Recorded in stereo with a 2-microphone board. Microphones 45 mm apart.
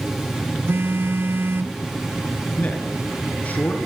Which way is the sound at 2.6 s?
35° left (ahead or behind).